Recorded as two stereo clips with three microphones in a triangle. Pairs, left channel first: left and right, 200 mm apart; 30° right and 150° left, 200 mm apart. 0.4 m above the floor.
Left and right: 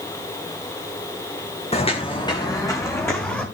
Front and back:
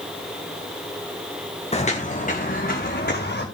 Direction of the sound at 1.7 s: 30° left.